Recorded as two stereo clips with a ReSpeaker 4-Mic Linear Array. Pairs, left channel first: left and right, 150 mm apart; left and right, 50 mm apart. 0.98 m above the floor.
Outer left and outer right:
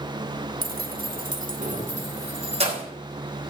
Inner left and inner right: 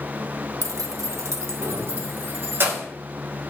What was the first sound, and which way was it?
Keys jangling, 75° right (ahead or behind).